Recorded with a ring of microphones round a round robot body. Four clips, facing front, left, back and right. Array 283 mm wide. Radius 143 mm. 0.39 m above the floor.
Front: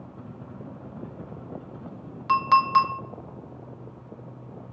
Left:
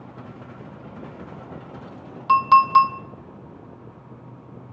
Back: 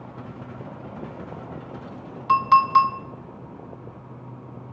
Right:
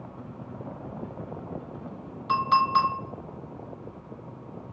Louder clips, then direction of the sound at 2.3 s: Left 8 dB, back 3 dB; 60° left.